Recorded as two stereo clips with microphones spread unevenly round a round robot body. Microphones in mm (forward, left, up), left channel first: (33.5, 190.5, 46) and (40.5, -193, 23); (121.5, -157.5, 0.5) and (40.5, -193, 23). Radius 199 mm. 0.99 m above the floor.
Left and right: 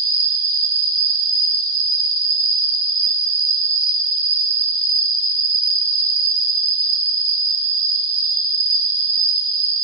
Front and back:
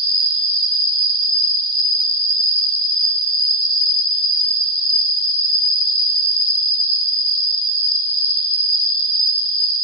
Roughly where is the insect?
Behind.